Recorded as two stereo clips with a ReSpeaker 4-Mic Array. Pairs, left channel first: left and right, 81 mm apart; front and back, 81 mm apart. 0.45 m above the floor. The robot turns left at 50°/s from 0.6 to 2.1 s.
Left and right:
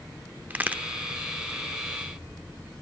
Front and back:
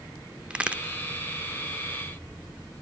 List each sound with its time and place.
0.5 s a crack: 120° right, 0.7 m; by 0.8 s 135° right, 0.7 m